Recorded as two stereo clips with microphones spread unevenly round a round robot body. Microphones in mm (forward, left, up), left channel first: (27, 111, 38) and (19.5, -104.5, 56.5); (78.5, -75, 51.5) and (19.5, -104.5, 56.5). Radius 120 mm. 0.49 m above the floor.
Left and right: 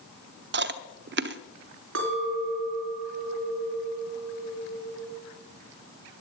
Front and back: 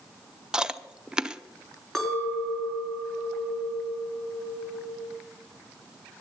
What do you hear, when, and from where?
0.5 s chewing: 75° right, 0.9 m
1.9 s a clink: 60° right, 4.5 m